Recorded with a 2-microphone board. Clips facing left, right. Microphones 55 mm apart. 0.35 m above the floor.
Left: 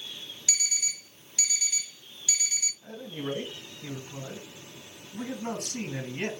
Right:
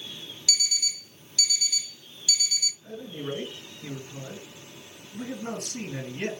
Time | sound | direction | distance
0.5 | an alarm clock | 25° left (ahead or behind) | 0.6 m
2.8 | a man speaking | 60° left (ahead or behind) | 3 m